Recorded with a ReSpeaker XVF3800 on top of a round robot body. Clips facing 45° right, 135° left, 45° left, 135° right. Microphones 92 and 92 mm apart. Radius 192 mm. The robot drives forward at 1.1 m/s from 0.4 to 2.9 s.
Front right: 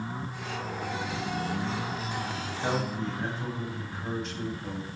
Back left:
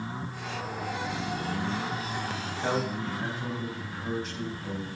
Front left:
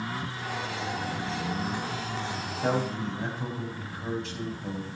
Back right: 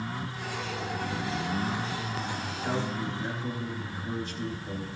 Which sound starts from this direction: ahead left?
A man speaking, at 2.4 s.